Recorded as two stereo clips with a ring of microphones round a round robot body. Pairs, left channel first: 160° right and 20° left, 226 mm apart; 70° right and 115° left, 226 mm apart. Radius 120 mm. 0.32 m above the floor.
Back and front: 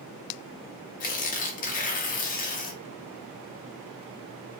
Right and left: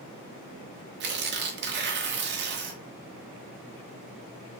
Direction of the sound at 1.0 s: 150° left.